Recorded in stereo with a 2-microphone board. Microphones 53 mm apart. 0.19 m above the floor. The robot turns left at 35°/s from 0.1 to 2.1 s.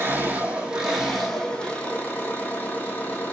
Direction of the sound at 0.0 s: 145° right.